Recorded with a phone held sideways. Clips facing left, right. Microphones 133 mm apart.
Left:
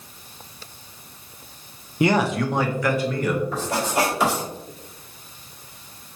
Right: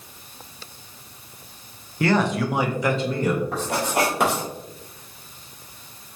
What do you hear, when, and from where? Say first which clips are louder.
2.0 s a man speaking: left 1 dB; 20° left (ahead or behind), 0.5 m; by 3.4 s 30° right (ahead or behind), 1.1 m
3.5 s writing: even; 60° right (ahead or behind), 1.8 m